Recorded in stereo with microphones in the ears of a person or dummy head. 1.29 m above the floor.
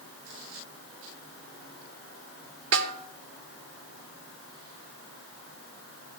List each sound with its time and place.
2.7 s a snare drum: 75° right (ahead or behind), 1.3 m